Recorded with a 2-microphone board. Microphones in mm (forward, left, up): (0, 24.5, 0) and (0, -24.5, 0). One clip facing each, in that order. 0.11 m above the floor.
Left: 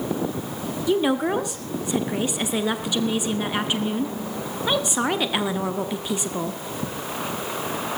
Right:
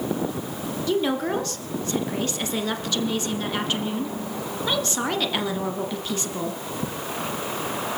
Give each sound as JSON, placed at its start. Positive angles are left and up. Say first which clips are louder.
{"t": 0.9, "sound": "a woman speaking", "louder": "left 3 dB", "side_deg": 15, "distance_m": 1.4}